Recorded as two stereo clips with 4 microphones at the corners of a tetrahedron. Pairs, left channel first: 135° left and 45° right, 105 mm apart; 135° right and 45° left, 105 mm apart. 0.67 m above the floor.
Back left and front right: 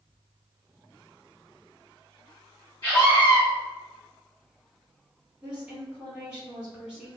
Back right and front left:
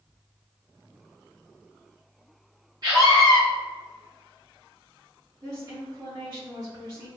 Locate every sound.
2.8 s a scream: 85° left, 0.8 m
5.4 s a woman speaking: 35° left, 1.4 m